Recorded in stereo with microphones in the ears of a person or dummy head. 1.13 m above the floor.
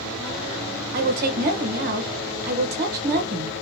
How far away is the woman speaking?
About 1.2 m.